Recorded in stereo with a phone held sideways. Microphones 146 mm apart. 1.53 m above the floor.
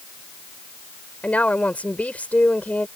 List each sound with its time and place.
1.2 s a woman speaking: 10° left (ahead or behind)